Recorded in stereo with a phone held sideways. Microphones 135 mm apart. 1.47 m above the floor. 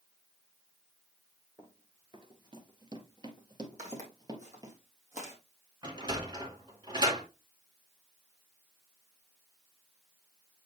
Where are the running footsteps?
30° right (ahead or behind), 1.7 m.